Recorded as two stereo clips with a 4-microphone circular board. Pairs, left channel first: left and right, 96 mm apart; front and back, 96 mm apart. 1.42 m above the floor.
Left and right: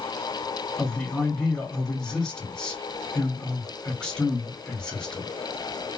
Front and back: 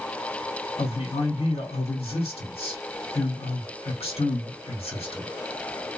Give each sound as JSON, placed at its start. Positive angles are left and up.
{"t": 0.8, "sound": "a man speaking", "azimuth_deg": 10, "distance_m": 2.0}